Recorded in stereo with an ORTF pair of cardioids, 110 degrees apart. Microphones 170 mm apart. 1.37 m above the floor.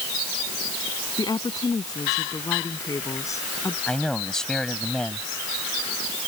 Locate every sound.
1.2 s a woman speaking: 25° left; by 3.8 s 15° left
3.9 s a man speaking: 5° left